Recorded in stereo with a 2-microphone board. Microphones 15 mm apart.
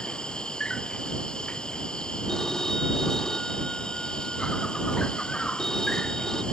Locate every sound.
0.0 s an insect: 80° left
2.3 s a phone ringing: 40° left (ahead or behind)